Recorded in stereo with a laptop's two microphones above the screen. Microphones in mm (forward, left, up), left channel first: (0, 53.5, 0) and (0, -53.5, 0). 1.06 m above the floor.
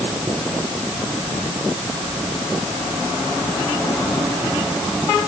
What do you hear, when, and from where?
Only background noise.